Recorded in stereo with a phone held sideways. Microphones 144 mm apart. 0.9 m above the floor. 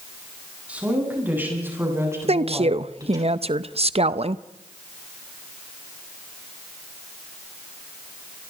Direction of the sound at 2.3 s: 45° right (ahead or behind).